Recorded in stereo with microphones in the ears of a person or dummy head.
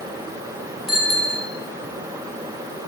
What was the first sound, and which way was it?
A bicycle bell, 5° right (ahead or behind).